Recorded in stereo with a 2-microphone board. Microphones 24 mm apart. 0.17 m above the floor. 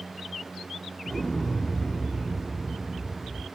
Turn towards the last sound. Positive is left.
turn(degrees=30)  # may be behind; listen again after turning